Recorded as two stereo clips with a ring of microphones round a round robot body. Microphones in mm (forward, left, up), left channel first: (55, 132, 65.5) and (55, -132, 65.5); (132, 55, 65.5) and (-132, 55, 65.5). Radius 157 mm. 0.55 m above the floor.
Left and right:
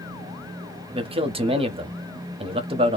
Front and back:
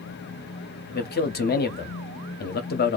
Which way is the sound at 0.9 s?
30° right.